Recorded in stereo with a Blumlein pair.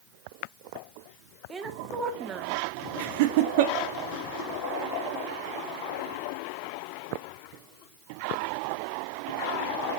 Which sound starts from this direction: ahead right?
Laughter, at 3.0 s.